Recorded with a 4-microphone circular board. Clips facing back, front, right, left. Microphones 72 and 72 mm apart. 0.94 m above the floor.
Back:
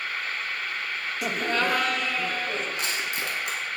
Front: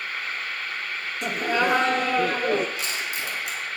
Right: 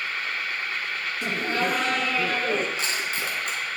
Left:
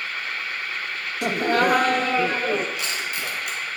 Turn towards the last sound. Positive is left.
turn(degrees=-145)